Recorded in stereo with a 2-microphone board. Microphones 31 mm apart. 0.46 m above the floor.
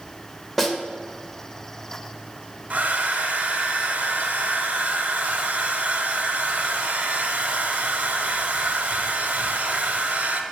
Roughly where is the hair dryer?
Right.